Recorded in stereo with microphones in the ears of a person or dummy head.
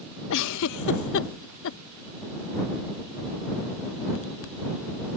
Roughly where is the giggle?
Left.